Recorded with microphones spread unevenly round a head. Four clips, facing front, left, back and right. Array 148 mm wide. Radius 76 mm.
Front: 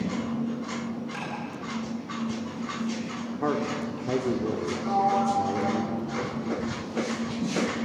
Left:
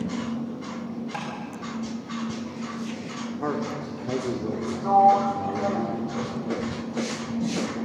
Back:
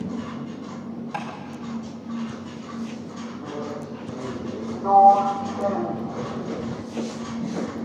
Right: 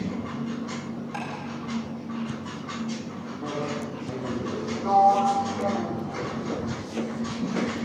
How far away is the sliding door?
About 1.3 m.